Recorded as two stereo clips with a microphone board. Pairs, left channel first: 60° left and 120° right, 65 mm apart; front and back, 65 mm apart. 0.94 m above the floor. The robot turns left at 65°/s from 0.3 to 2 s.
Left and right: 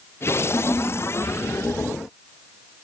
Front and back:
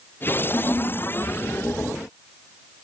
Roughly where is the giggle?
Ahead left.